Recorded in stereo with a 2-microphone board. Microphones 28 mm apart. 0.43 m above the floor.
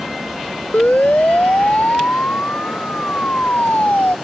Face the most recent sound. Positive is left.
turn(degrees=60)  # may be behind; listen again after turning